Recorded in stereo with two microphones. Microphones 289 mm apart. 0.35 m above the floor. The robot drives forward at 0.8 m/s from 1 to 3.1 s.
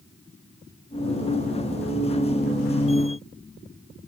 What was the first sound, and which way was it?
Only background noise.